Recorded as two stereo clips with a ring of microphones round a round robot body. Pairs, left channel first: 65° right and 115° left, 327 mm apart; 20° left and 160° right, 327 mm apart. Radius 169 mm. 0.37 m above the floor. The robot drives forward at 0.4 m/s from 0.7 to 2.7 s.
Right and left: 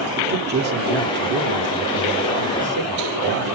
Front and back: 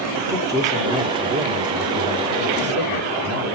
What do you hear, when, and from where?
0.2 s a man speaking: 135° left, 1.4 m; by 3.5 s 155° left, 1.8 m